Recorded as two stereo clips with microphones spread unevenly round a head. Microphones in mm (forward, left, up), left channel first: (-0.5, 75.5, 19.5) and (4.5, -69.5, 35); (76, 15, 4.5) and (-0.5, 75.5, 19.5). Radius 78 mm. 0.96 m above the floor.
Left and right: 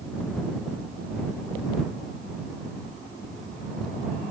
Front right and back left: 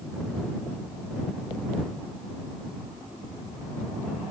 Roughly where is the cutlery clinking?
I don't hear cutlery clinking.